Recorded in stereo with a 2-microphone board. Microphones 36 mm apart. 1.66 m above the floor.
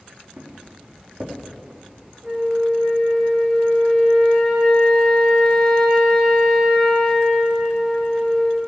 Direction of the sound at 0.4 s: 55° right (ahead or behind).